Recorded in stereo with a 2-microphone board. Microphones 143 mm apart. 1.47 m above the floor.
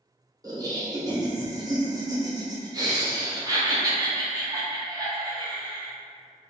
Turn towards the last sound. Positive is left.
turn(degrees=-25)  # may be behind; listen again after turning